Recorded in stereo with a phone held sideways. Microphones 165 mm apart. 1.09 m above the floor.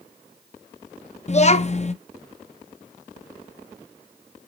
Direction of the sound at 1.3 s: 45° left (ahead or behind).